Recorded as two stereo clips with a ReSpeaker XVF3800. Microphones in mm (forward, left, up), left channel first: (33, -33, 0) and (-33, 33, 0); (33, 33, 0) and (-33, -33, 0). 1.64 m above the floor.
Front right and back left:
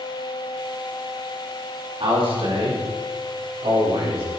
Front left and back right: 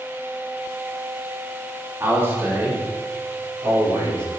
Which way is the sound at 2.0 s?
165° left.